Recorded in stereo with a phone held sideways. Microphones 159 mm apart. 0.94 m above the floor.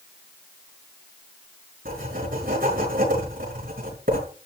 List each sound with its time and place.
1.9 s writing: 65° right (ahead or behind), 6.5 m